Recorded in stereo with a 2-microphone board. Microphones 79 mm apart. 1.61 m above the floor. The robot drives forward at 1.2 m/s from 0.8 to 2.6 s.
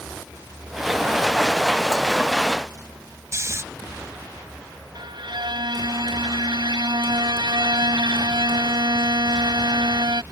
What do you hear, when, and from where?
3.3 s snoring: 35° right (ahead or behind)
5.0 s a violin: 75° right (ahead or behind)